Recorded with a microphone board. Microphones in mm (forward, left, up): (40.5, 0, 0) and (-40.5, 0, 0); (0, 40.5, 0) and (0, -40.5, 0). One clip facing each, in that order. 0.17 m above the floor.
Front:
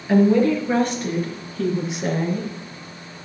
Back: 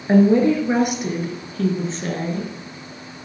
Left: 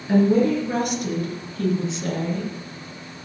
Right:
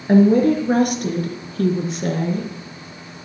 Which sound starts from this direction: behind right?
A woman speaking, at 0.1 s.